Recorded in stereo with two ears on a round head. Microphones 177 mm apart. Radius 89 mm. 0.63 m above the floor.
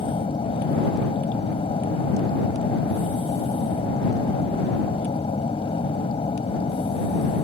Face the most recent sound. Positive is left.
turn(degrees=30)  # may be behind; listen again after turning